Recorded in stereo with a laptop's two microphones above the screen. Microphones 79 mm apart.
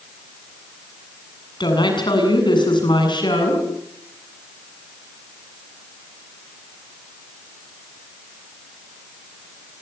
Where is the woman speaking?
75° left (ahead or behind), 7.5 m.